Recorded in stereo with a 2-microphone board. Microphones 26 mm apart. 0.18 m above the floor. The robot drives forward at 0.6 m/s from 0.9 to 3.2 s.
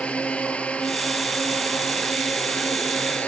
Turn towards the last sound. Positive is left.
turn(degrees=60)  # may be behind; listen again after turning